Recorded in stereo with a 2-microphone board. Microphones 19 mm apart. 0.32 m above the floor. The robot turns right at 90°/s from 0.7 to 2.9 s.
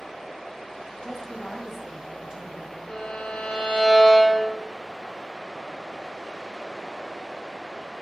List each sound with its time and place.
1.0 s a woman speaking: 130° left, 2 m; by 2.8 s 70° right, 2 m
2.9 s a violin: 80° left, 2.5 m